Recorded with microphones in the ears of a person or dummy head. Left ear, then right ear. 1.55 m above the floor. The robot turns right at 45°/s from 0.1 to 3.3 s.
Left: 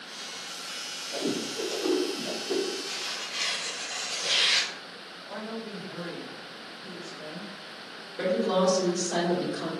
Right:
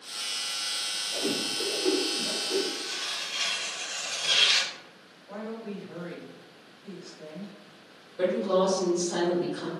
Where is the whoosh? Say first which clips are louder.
Left 1 dB; 45° left (ahead or behind), 0.7 m; by 2.6 s 65° left (ahead or behind), 0.7 m.